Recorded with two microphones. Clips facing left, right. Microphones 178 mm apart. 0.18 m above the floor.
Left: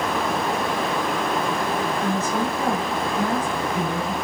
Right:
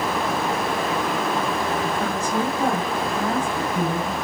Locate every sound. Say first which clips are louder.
2.0 s a woman speaking: even; 15° right (ahead or behind), 1.4 m; by 4.1 s 25° right (ahead or behind), 1.6 m